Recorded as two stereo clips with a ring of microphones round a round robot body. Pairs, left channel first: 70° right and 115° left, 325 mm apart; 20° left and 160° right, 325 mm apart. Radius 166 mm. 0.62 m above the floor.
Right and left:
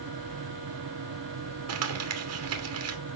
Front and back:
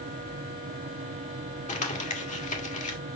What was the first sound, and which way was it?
Crumpling, 85° left.